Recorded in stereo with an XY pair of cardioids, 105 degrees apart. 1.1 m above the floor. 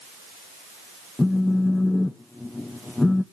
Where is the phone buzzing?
15° left, 0.9 m.